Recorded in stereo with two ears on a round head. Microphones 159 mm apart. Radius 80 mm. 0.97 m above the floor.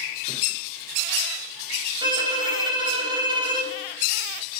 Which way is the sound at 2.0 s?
30° right (ahead or behind).